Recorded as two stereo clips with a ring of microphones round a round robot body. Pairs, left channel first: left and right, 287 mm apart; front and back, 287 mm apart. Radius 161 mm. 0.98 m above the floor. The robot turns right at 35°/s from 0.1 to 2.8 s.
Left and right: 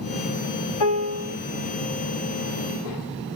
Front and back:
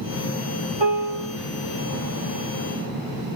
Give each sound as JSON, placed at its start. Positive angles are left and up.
{"t": 0.8, "sound": "a piano", "azimuth_deg": 105, "distance_m": 1.0}